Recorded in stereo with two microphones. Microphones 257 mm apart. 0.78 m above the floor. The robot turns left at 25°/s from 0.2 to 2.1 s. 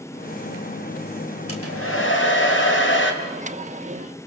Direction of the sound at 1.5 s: 65° left (ahead or behind).